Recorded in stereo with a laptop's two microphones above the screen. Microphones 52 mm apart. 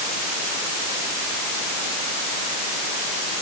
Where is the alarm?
I don't hear an alarm.